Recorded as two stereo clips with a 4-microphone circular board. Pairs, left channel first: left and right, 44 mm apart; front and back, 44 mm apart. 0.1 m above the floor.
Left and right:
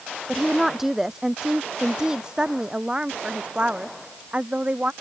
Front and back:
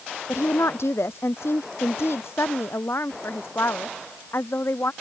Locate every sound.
0.3 s a woman speaking: 5° right; by 4.9 s 30° right